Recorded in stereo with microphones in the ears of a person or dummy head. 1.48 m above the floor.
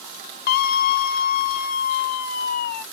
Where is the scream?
55° left (ahead or behind).